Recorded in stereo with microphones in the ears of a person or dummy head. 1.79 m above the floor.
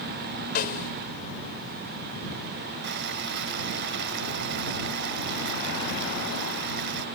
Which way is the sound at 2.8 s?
70° right (ahead or behind).